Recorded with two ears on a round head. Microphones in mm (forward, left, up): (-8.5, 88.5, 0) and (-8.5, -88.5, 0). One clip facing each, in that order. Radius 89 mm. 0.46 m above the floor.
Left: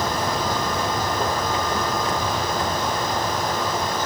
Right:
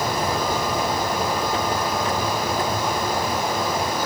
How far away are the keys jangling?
About 7 m.